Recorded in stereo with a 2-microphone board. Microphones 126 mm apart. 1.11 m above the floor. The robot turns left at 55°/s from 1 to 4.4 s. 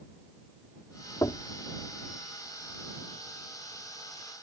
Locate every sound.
1.2 s knocking: 25° left (ahead or behind); by 1.4 s 40° left (ahead or behind)